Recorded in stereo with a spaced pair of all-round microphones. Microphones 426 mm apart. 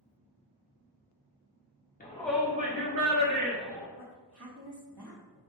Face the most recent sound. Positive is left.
turn(degrees=-60)  # may be behind; listen again after turning